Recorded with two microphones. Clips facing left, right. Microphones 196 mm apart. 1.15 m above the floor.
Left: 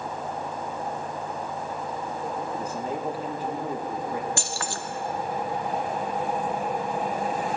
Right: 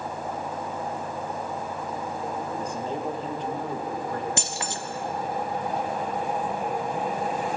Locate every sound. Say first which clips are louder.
2.6 s a man speaking: even; 5° left (ahead or behind), 1.5 m
4.4 s keys jangling: even; 20° right (ahead or behind), 0.7 m